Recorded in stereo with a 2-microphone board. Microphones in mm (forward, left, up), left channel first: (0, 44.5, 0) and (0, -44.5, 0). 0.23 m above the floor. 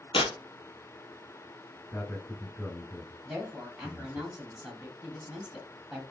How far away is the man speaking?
About 1.4 m.